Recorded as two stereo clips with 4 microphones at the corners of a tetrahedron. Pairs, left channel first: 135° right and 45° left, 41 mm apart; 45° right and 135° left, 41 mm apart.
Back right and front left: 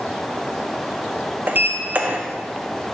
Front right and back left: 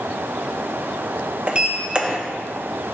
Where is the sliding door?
75° left, 0.6 m.